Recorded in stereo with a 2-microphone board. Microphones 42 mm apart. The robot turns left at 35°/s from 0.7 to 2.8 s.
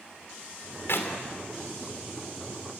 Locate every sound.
0.9 s a clap: 65° left (ahead or behind), 3 m; by 1.1 s 70° left (ahead or behind), 3 m